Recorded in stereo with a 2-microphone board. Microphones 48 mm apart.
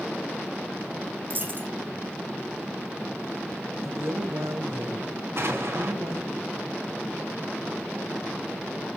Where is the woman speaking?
70° right (ahead or behind), 2.5 m.